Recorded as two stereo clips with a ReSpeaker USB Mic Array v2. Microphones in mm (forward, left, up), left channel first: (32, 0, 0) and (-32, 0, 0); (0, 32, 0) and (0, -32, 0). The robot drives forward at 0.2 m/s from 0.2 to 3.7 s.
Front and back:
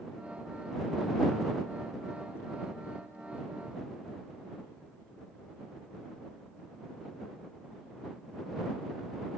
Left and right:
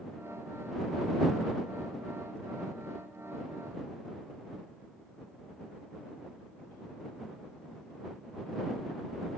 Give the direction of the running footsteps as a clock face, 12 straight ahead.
I don't hear running footsteps.